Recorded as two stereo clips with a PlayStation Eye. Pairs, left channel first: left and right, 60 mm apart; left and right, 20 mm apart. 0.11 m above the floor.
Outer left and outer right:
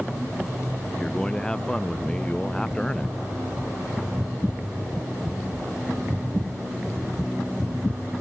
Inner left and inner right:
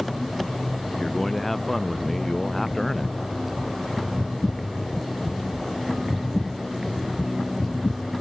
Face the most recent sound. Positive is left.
turn(degrees=15)  # may be behind; listen again after turning